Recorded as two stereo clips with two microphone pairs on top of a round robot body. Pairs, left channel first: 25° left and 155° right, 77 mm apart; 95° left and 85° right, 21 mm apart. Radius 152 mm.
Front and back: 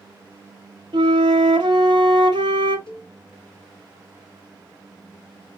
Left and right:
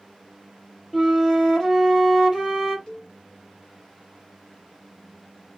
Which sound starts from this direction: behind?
A flute, at 0.9 s.